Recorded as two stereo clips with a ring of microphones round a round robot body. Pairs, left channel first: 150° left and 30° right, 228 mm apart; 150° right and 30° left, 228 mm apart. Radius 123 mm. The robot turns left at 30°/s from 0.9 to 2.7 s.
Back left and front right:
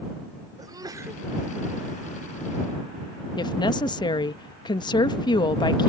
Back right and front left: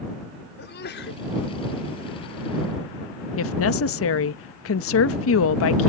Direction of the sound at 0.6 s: 105° right.